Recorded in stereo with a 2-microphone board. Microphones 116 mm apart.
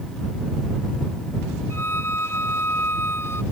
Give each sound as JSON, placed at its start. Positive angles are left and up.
{"t": 1.7, "sound": "a violin", "side_deg": 20}